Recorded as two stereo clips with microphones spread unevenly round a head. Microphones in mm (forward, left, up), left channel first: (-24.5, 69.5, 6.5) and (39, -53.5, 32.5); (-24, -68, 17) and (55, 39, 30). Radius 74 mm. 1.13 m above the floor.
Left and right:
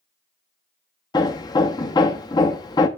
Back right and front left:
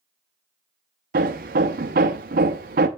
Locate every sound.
1.1 s hammering: 50° left, 0.8 m